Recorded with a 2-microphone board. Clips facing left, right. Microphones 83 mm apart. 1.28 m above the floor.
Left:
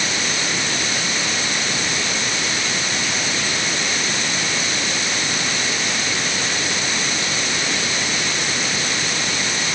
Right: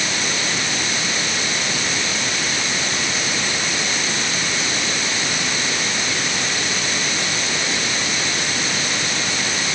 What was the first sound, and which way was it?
Only background noise.